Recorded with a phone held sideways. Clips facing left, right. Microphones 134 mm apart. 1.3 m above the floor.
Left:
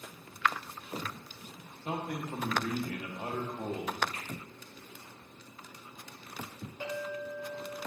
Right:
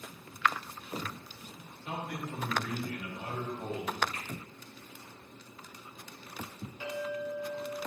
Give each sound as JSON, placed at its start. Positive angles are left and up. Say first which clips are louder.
{"t": 1.9, "sound": "a man speaking", "louder": "left 3 dB", "side_deg": 50, "distance_m": 1.3}
{"t": 4.1, "sound": "a finger snap", "louder": "right 1 dB", "side_deg": 55, "distance_m": 3.5}
{"t": 6.8, "sound": "a clink", "louder": "right 1 dB", "side_deg": 50, "distance_m": 3.0}